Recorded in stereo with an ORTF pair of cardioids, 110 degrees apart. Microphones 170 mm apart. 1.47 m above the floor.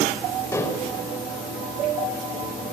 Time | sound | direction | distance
0.5 | dishes clattering | 15° left | 4 m